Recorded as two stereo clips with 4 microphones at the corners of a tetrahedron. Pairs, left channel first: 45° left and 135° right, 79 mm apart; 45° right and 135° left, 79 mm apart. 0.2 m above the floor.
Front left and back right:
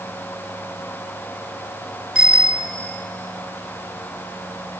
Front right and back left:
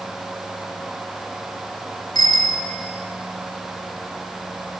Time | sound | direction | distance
2.1 | a bicycle bell | 60° right | 2 m